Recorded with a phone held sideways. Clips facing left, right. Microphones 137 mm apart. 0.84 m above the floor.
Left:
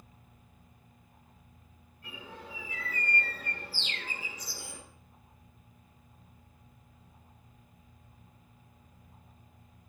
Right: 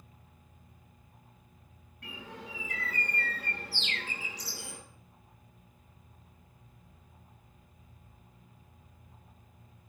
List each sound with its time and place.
2.0 s a bird: 80° right, 7.5 m